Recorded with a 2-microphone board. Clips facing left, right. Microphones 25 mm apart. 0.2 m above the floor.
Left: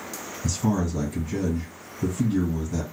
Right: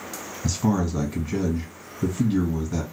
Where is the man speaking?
30° right (ahead or behind), 1.5 m.